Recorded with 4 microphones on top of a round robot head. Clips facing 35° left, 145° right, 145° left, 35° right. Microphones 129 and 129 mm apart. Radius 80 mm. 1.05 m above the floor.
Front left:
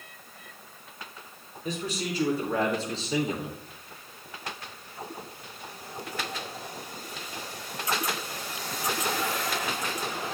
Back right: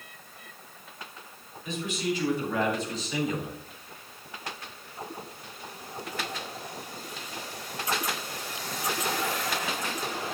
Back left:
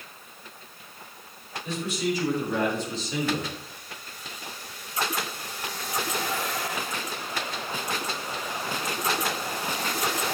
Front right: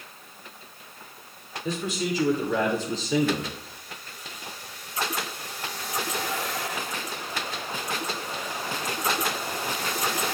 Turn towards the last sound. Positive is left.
turn(degrees=-35)